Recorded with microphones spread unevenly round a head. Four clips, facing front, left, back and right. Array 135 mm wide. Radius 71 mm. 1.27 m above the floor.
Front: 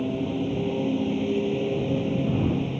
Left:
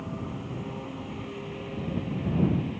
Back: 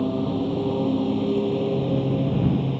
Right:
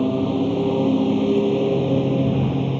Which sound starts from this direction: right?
A lawn mower, at 0.0 s.